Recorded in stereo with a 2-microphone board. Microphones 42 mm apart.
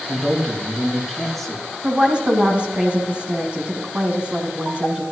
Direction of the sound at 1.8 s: 25° right (ahead or behind).